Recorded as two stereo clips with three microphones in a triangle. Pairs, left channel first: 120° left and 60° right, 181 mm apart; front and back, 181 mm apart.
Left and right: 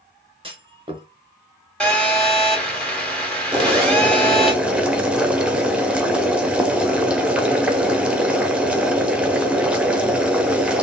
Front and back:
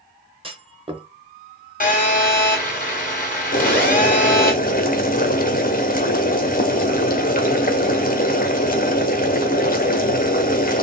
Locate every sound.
0.4 s a clunk: 120° right, 0.8 m
1.8 s a phone buzzing: 35° left, 1.8 m
3.5 s boiling: 25° left, 0.8 m